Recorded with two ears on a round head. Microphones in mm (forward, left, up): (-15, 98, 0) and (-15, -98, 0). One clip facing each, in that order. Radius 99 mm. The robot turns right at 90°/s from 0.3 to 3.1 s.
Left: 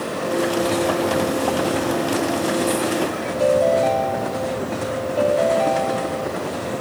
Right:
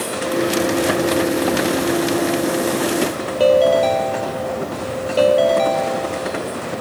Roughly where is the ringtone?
Right.